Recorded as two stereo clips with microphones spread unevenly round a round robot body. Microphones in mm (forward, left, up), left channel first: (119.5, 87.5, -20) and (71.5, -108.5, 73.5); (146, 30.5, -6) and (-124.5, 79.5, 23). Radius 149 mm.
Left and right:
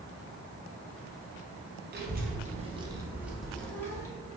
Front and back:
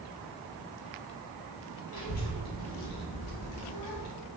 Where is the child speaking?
60° right, 1.4 m; by 4.1 s 5° left, 1.7 m.